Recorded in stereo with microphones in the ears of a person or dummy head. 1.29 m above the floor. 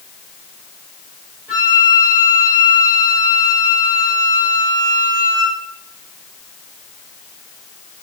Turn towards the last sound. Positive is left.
turn(degrees=-10)  # may be behind; listen again after turning